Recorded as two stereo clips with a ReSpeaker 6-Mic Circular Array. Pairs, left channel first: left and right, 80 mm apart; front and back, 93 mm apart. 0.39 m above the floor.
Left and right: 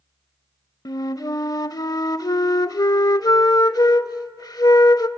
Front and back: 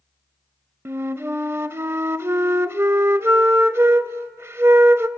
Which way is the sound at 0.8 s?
120° left.